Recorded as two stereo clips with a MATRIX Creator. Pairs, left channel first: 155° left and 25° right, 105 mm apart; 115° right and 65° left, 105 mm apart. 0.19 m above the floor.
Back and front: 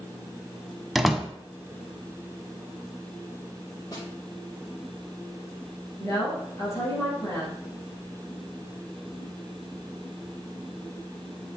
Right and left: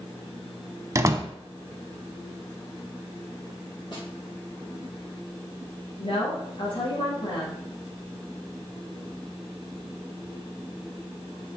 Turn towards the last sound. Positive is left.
turn(degrees=-145)